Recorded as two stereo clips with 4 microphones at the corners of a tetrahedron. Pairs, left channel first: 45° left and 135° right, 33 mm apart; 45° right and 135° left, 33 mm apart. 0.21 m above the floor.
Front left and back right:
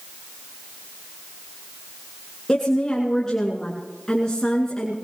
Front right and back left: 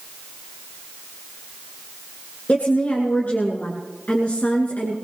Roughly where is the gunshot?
I don't hear a gunshot.